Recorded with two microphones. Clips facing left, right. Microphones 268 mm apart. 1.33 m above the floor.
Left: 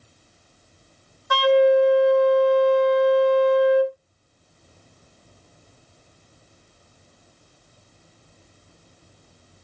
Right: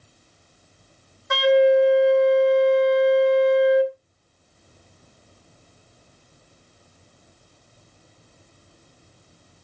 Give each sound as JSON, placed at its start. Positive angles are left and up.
{"t": 1.3, "sound": "a flute", "side_deg": -25, "distance_m": 0.8}